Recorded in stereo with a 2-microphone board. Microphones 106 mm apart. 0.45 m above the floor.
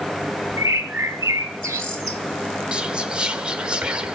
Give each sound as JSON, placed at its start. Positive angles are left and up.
{"t": 0.6, "sound": "a bird", "side_deg": -25, "distance_m": 1.3}
{"t": 2.7, "sound": "whispering", "side_deg": -10, "distance_m": 1.1}